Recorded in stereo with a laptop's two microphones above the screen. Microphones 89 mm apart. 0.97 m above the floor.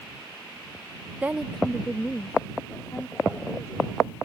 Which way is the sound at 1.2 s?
20° right (ahead or behind).